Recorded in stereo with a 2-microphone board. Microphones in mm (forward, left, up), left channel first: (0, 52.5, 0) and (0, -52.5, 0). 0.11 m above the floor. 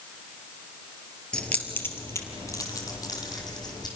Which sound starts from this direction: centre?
Keys jangling, at 1.3 s.